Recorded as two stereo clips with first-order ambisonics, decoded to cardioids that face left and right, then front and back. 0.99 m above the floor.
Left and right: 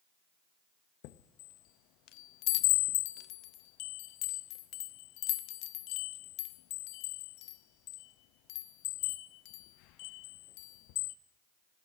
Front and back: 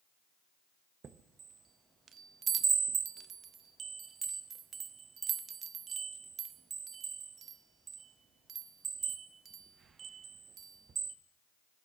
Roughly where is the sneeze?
No sneeze in this recording.